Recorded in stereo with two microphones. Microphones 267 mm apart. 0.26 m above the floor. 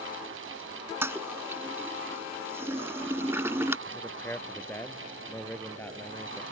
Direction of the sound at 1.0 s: 10° right (ahead or behind).